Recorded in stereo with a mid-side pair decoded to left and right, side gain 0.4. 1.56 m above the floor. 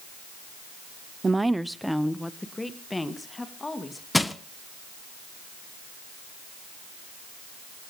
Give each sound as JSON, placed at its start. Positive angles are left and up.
{"t": 1.2, "sound": "a woman speaking", "azimuth_deg": -30, "distance_m": 0.5}
{"t": 4.1, "sound": "crushing", "azimuth_deg": 10, "distance_m": 1.1}